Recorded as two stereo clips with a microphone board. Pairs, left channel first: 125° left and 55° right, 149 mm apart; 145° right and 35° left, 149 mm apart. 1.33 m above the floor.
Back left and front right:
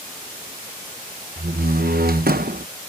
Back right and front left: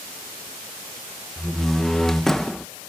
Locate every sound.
1.4 s a door slam: 60° right